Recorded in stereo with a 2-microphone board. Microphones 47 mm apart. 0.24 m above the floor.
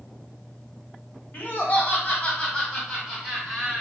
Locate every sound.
1.3 s laughter: 40° left (ahead or behind), 1.3 m; by 3.8 s 5° left (ahead or behind), 1.6 m